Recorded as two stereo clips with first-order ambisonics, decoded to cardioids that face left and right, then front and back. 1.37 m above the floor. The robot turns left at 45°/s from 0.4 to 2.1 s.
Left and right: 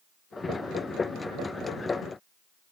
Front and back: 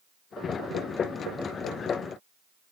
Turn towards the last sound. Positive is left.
No sound to turn to.